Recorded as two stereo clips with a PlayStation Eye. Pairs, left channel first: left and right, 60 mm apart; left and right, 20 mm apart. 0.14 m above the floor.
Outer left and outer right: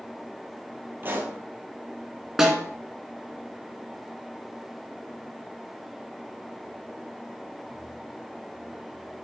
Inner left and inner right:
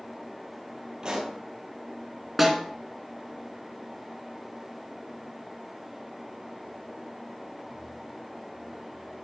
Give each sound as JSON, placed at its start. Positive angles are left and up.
{"t": 1.0, "sound": "a pop", "side_deg": -35, "distance_m": 2.0}
{"t": 2.4, "sound": "a snare drum", "side_deg": -5, "distance_m": 1.8}